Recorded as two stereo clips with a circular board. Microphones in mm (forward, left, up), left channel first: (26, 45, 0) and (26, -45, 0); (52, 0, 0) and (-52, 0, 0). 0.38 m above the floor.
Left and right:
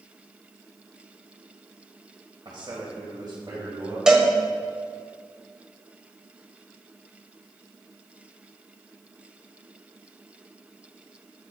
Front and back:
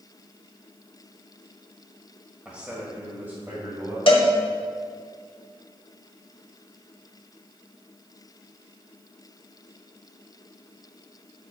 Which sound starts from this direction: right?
A man speaking, at 2.5 s.